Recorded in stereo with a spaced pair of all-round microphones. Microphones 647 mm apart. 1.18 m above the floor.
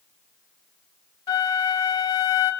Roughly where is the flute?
Left.